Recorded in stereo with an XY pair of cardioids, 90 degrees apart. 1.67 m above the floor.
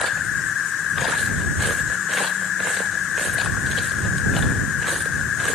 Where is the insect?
70° left.